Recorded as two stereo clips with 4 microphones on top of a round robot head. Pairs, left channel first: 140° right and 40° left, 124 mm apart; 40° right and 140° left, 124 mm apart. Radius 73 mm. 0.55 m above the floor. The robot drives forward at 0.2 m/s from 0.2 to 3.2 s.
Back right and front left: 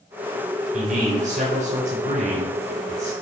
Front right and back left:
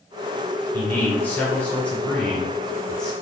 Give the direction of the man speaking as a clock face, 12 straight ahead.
11 o'clock.